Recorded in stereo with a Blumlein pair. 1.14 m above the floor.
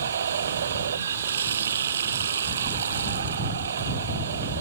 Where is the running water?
65° right.